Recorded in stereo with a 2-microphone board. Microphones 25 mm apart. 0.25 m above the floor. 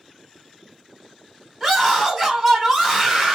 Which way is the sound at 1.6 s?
Centre (ahead or behind).